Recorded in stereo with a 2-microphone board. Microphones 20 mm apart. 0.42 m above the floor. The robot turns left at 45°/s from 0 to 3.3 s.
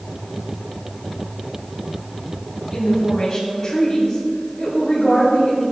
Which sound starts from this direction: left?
A woman speaking, at 2.7 s.